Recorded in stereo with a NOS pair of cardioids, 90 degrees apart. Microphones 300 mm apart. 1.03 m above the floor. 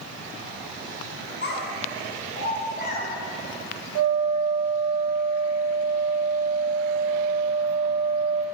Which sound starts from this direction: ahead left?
A child speaking, at 1.4 s.